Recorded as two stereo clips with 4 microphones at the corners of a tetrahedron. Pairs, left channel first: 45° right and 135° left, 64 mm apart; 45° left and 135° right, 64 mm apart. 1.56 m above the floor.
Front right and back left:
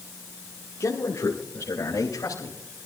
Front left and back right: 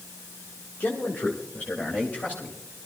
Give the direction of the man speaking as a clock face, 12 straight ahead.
12 o'clock.